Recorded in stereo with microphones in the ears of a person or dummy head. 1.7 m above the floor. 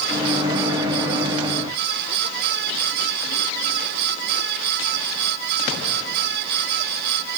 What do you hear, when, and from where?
0.1 s a microwave: 25° right (ahead or behind), 0.6 m